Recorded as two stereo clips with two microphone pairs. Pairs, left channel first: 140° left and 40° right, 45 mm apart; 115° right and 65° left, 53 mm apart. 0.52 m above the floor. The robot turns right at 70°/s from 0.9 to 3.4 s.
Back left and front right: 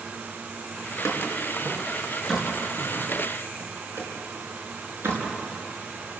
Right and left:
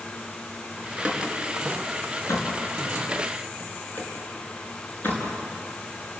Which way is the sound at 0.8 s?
120° left.